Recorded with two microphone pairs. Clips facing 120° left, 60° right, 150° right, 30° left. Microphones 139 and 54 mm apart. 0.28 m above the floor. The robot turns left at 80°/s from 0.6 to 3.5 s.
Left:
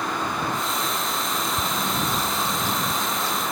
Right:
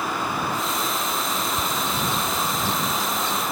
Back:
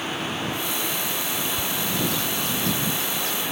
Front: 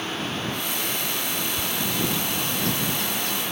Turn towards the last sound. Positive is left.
turn(degrees=-15)